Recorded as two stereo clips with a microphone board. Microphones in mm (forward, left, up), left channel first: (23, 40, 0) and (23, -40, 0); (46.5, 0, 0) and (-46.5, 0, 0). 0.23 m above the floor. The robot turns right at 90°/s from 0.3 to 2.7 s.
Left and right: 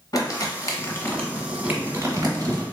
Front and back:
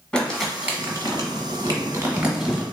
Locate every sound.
0.1 s crumpling: 80° left, 1.1 m; by 2.6 s 70° right, 1.1 m